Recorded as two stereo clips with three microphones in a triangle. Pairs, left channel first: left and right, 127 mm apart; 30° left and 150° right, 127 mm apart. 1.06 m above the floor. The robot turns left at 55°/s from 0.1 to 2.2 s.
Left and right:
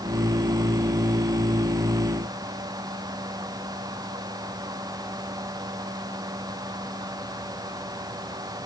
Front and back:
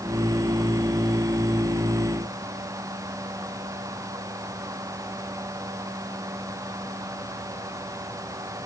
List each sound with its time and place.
Only background noise.